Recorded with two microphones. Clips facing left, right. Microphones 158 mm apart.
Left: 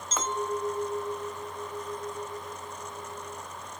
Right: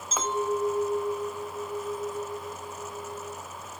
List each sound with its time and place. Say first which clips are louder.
0.1 s a clink: right 3 dB; 10° right (ahead or behind), 0.6 m